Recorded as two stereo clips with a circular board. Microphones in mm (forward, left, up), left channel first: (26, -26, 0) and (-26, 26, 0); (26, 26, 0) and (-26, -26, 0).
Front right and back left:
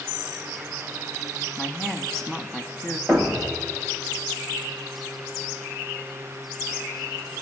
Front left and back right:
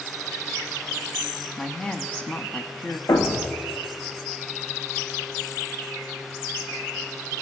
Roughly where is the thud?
Ahead left.